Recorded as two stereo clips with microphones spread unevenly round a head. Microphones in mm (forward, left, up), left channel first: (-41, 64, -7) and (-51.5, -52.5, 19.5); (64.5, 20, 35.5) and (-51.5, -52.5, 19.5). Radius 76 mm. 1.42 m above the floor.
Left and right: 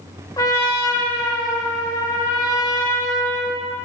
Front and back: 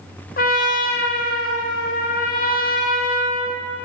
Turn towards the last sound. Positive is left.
turn(degrees=10)